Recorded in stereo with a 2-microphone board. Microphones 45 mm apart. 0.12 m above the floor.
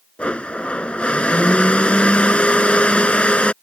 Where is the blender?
25° left (ahead or behind).